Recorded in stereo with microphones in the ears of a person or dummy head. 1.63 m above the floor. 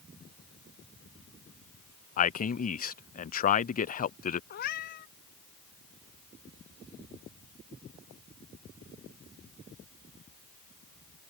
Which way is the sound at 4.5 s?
40° left (ahead or behind).